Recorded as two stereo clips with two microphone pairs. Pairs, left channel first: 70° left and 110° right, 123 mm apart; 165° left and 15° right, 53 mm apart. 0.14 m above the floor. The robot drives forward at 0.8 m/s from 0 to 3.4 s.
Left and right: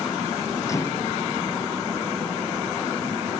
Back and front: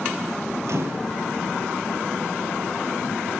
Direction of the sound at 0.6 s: 5° left.